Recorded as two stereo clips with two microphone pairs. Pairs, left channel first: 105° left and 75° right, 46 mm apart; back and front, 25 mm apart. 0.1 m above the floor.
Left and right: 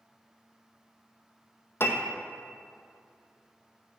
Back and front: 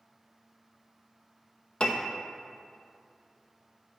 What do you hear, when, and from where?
1.8 s a piano: 135° left, 0.7 m